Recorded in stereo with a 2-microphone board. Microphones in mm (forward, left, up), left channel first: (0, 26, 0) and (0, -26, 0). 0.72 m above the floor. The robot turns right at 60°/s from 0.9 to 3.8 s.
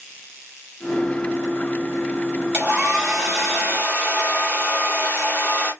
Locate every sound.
2.5 s a hair dryer: 50° right, 2 m; by 5.7 s 30° left, 2 m